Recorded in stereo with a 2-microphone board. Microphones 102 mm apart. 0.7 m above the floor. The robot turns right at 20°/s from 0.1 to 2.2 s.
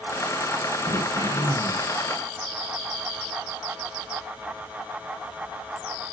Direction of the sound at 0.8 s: 75° right (ahead or behind).